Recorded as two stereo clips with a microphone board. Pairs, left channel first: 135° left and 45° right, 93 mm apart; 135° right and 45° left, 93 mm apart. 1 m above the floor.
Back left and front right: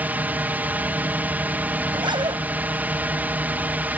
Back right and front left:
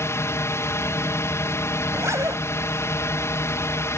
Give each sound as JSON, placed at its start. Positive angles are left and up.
{"t": 0.0, "sound": "a drone", "azimuth_deg": -105}
{"t": 1.9, "sound": "a zipper", "azimuth_deg": -15}